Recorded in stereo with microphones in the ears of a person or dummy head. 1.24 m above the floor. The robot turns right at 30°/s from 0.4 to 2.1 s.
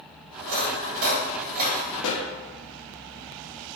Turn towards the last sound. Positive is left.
turn(degrees=75)  # may be behind; listen again after turning